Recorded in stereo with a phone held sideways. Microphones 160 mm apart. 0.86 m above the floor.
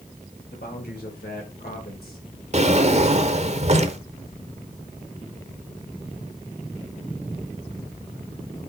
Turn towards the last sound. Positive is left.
turn(degrees=-45)  # may be behind; listen again after turning